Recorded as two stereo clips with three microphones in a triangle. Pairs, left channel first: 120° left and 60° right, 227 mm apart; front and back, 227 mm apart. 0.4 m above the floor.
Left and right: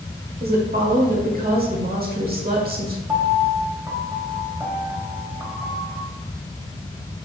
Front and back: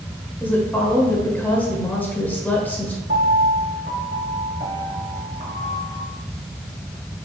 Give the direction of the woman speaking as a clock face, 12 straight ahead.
3 o'clock.